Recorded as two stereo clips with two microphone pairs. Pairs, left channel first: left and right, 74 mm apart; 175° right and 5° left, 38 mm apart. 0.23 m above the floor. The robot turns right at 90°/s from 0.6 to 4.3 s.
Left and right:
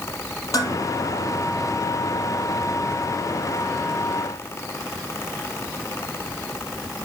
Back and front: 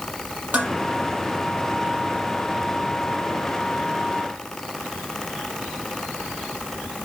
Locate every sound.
0.5 s dishes clattering: 45° left, 5 m; by 0.8 s 60° left, 5 m